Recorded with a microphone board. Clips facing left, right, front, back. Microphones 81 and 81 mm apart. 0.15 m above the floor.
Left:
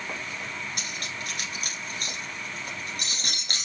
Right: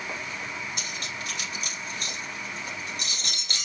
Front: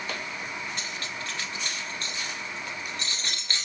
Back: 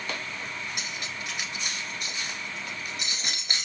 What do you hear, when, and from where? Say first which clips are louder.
0.8 s cutlery clinking: even, front 1 dB; 110° left, 1.4 m